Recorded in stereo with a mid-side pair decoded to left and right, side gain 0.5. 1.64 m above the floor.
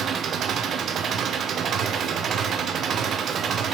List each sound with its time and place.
0.0 s an engine running: 50° right, 1.1 m